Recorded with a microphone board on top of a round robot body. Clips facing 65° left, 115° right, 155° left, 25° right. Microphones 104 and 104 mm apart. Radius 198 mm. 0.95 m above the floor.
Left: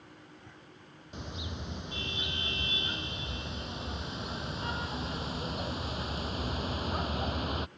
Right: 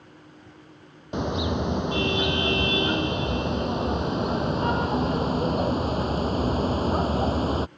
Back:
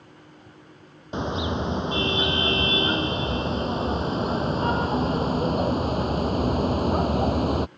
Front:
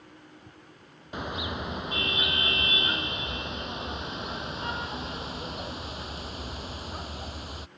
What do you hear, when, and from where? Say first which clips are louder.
1.1 s a car horn: right 17 dB, back 7 dB; 140° right; by 7.7 s 170° right